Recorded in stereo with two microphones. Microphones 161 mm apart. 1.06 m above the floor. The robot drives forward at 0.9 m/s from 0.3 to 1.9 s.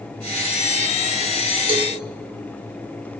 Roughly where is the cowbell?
Right.